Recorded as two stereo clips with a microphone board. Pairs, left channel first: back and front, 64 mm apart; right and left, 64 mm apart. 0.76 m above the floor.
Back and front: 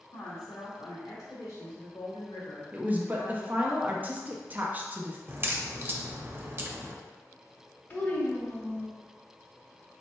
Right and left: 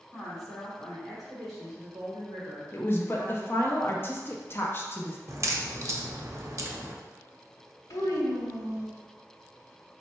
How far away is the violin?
No violin in this recording.